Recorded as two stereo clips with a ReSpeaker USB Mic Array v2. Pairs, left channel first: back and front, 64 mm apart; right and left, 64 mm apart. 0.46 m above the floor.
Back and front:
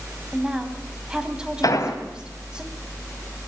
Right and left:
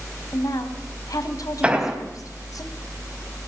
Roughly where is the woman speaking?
Right.